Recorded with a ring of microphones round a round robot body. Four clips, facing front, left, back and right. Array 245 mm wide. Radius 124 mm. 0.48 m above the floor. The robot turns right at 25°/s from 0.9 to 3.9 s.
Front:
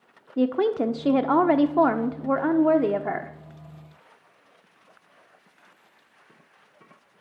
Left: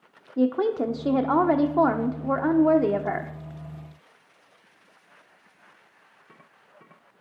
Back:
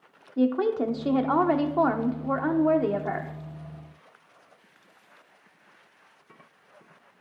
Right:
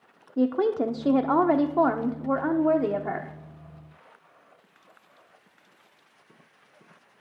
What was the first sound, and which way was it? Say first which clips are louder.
A woman speaking: left 1 dB, front 1 dB; 10° right.